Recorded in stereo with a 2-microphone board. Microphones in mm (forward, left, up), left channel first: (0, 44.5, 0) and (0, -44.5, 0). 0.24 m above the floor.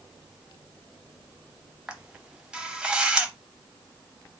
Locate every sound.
1.9 s a camera shutter: 10° right (ahead or behind), 0.7 m